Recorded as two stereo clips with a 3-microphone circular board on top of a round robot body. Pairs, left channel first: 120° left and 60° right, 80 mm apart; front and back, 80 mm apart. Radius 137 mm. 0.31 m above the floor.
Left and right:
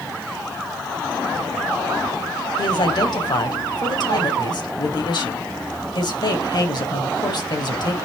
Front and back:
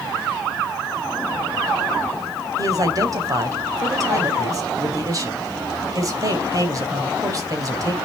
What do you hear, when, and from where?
2.6 s a man speaking: 140° left, 3 m